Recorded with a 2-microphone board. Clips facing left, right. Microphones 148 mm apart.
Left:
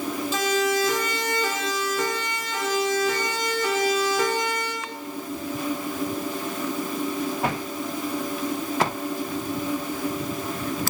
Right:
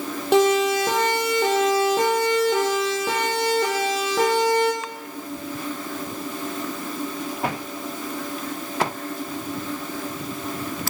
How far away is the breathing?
No breathing in this recording.